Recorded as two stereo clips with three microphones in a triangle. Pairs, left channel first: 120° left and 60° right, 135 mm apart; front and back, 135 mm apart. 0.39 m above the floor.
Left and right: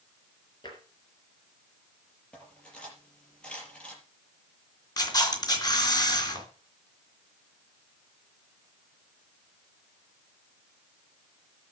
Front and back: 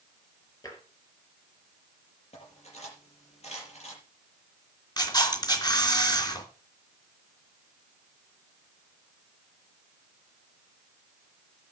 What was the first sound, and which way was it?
Tapping, 65° left.